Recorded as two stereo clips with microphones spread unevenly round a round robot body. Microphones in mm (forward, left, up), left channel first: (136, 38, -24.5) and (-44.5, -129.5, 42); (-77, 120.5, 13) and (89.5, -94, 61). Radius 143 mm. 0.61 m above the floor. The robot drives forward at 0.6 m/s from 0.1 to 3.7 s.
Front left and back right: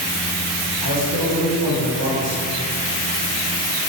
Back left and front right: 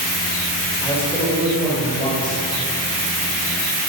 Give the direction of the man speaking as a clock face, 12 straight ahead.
5 o'clock.